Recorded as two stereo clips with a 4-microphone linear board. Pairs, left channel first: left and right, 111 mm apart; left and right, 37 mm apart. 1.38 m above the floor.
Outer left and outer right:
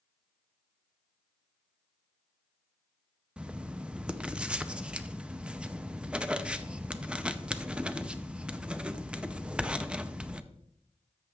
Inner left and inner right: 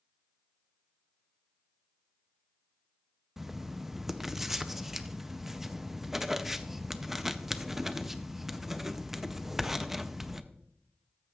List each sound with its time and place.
3.4 s writing: 10° right (ahead or behind), 0.5 m